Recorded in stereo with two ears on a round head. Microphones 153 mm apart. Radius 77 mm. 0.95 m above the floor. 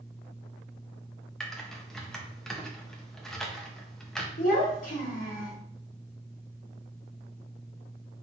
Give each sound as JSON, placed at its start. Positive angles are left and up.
{"t": 1.4, "sound": "typing on a keyboard", "side_deg": 5, "distance_m": 0.7}
{"t": 4.4, "sound": "a child speaking", "side_deg": 50, "distance_m": 2.0}